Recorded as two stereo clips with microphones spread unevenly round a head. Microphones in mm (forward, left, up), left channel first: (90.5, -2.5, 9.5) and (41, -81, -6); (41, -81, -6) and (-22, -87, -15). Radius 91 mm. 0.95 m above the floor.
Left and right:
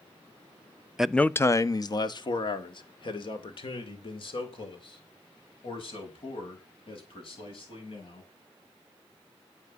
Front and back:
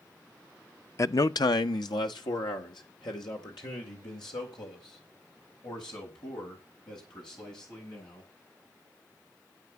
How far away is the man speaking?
About 0.6 m.